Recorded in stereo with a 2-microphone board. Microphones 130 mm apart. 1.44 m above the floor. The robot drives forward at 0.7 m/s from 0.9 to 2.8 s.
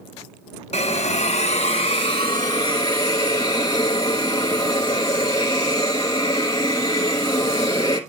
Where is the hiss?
55° left (ahead or behind), 0.8 m; by 8.0 s 30° left (ahead or behind), 1.4 m.